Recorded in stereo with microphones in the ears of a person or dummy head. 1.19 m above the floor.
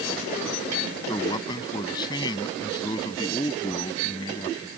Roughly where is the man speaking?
Left.